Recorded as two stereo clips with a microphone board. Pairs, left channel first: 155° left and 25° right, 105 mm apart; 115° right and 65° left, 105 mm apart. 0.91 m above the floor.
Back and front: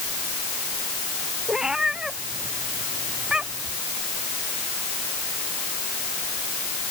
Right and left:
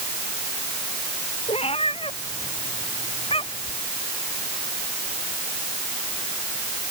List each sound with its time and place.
1.5 s a cat meowing: 105° right